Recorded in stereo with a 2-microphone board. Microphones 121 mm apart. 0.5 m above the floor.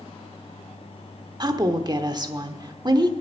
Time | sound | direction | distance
1.4 | a woman speaking | 35° right (ahead or behind) | 0.9 m